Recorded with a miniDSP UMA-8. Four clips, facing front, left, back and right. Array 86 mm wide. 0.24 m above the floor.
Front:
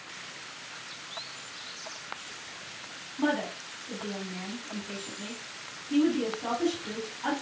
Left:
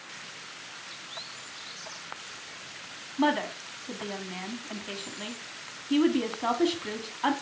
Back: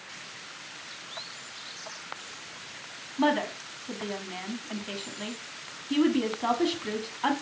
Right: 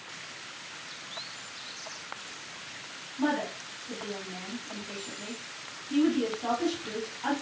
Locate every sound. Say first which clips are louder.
3.2 s a woman speaking: left 3 dB, back 3 dB; 130° left, 1.5 m